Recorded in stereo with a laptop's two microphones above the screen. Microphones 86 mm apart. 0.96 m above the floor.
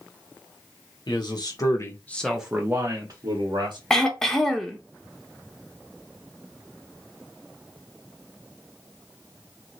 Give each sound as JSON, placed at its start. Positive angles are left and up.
{"t": 1.1, "sound": "a man speaking", "side_deg": 55, "distance_m": 1.2}
{"t": 3.9, "sound": "throat clearing", "side_deg": 5, "distance_m": 0.6}